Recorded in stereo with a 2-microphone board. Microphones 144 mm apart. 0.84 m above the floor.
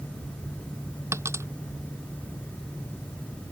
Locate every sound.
1.1 s a dropped coin: 20° right (ahead or behind)